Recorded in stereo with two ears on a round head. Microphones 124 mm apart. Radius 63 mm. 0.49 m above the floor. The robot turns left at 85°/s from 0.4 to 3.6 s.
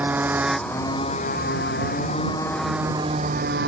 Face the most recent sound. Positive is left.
turn(degrees=-80)